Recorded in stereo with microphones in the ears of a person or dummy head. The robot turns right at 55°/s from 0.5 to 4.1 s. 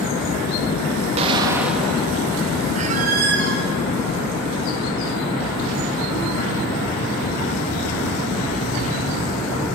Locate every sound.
1.2 s an explosion: 30° right, 1.9 m; by 2.1 s 20° left, 1.9 m
2.8 s a squeak: 130° right, 1.4 m; by 3.6 s 80° right, 1.4 m